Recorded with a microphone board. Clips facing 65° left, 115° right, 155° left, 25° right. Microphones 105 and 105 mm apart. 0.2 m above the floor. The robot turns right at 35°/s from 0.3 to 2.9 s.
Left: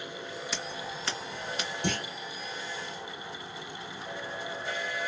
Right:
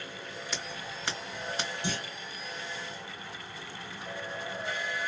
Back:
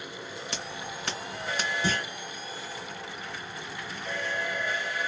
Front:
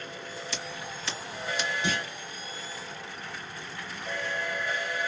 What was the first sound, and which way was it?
Scissors, 155° left.